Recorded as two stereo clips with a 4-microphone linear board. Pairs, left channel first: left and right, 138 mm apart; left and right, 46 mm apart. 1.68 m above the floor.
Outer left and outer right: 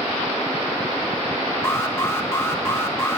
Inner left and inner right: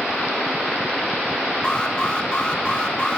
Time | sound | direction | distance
1.6 | an alarm | 20° left (ahead or behind) | 1.9 m